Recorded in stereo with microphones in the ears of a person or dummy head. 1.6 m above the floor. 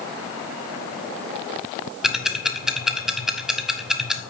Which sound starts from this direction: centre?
Ticking, at 2.0 s.